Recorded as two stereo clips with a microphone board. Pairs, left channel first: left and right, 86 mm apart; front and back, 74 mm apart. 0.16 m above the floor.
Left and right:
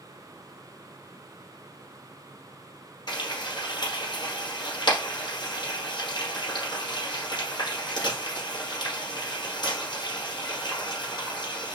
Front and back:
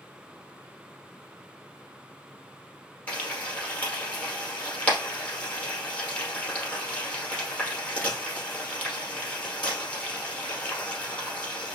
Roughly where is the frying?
Ahead left.